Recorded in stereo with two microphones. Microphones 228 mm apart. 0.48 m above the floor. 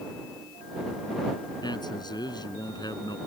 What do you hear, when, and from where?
1.6 s a man speaking: 20° left (ahead or behind)